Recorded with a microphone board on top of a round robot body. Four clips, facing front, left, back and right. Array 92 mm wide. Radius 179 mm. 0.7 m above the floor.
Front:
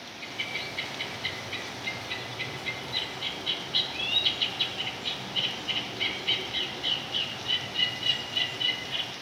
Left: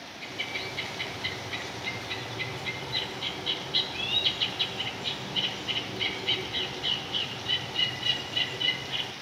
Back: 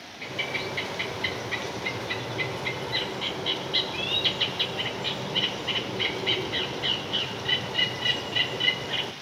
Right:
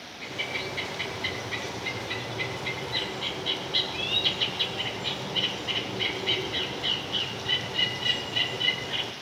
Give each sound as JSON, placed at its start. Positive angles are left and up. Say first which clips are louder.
{"t": 0.2, "sound": "a bird", "louder": "right 4 dB, back 7 dB", "azimuth_deg": -165, "distance_m": 0.7}